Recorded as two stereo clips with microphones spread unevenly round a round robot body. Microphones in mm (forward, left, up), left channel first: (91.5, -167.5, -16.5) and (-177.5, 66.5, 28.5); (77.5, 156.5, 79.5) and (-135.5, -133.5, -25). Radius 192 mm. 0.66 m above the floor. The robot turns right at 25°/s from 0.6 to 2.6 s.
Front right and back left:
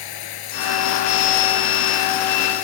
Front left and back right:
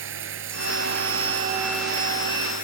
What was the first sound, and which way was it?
Running water, 65° right.